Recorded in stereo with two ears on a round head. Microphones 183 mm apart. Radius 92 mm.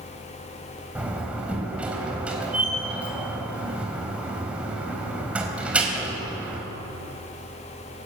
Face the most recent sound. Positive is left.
turn(degrees=-5)  # may be behind; listen again after turning